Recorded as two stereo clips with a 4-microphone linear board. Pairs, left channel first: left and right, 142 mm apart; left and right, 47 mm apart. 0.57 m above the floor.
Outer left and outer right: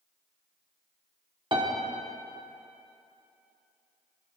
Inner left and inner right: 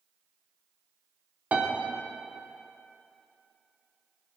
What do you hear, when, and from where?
1.5 s a piano: 35° right (ahead or behind), 1.1 m